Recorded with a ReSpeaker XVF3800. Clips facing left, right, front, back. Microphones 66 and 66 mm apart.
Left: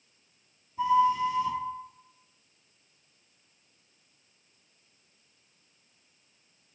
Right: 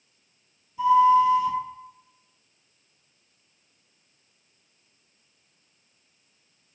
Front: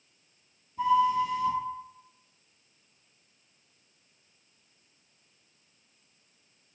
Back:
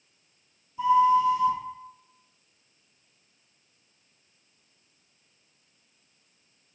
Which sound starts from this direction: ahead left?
A flute, at 0.8 s.